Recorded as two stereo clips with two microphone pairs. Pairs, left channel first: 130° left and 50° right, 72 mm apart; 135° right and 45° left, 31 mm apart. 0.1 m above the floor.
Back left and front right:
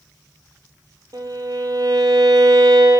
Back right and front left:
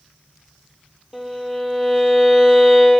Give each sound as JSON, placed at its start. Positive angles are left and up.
{"t": 1.1, "sound": "a violin", "azimuth_deg": -40, "distance_m": 0.7}